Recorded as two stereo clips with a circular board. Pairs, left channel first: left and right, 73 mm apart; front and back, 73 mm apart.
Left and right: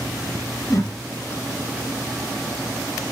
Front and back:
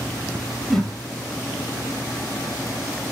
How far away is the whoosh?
About 2 m.